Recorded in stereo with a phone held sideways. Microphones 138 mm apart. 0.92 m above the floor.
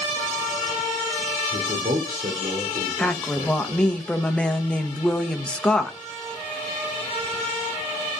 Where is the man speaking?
75° right (ahead or behind), 2.5 m.